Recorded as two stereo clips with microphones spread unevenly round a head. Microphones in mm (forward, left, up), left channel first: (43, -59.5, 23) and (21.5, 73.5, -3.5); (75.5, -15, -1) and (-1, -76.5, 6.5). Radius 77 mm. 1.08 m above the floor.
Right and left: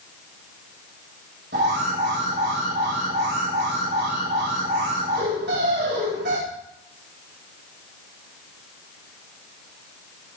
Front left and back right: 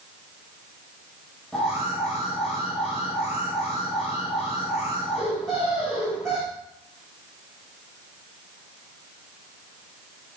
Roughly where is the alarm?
Behind left.